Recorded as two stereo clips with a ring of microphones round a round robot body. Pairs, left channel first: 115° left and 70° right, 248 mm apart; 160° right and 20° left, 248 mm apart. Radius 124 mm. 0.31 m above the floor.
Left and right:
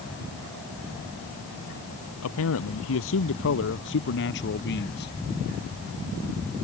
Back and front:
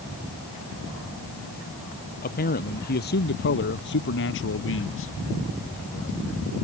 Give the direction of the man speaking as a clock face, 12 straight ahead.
7 o'clock.